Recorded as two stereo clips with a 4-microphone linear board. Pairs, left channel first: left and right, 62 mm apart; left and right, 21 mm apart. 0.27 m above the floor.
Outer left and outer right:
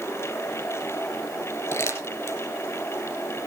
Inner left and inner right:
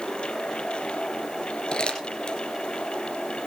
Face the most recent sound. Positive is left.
turn(degrees=50)  # may be behind; listen again after turning